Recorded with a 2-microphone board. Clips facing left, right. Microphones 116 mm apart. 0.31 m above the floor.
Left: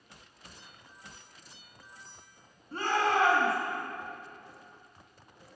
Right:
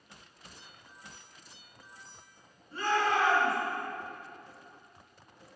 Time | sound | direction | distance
2.7 | a shout | 65° left (ahead or behind) | 2 m